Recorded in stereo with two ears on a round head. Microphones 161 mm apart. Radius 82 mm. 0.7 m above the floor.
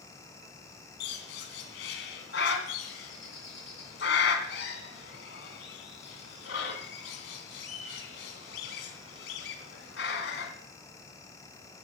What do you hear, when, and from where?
1.0 s a bird: 65° left (ahead or behind), 3 m